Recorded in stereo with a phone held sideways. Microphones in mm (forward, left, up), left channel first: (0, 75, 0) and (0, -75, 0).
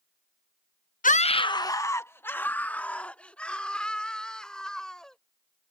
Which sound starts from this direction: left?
A scream, at 1.0 s.